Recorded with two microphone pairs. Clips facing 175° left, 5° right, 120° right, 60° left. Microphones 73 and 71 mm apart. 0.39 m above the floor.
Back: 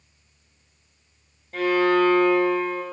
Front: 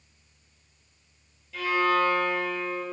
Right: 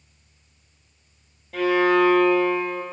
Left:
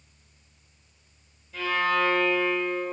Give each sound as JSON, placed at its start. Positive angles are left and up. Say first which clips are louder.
{"t": 1.5, "sound": "a violin", "louder": "back 5 dB, right 7 dB", "azimuth_deg": -140, "distance_m": 1.7}